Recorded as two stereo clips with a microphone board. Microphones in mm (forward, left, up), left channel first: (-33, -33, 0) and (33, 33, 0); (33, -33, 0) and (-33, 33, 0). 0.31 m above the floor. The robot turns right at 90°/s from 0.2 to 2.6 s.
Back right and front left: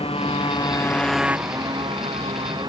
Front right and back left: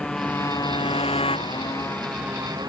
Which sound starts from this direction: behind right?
A motorcycle, at 0.0 s.